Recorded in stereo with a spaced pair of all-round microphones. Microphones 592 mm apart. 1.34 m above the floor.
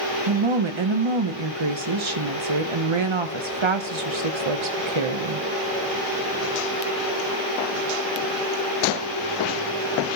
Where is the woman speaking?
55° right (ahead or behind), 0.9 m.